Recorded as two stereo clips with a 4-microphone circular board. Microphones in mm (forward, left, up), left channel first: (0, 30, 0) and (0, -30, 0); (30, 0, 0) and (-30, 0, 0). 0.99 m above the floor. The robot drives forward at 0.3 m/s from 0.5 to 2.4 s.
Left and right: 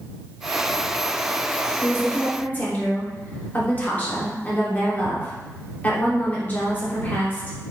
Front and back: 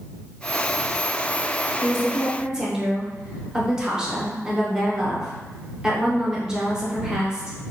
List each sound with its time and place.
1.8 s a woman speaking: 80° left, 0.6 m; by 7.6 s 115° left, 0.7 m